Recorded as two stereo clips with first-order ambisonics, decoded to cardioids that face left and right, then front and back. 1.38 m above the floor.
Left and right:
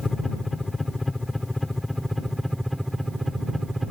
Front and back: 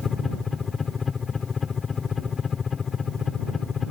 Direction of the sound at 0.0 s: 30° left.